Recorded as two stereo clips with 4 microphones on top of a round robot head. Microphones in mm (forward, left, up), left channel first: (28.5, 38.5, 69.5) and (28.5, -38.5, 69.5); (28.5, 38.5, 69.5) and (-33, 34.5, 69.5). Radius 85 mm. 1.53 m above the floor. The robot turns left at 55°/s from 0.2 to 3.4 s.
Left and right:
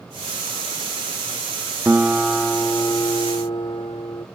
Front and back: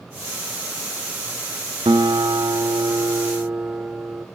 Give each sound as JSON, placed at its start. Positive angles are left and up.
{"t": 1.9, "sound": "a guitar", "azimuth_deg": -160, "distance_m": 0.6}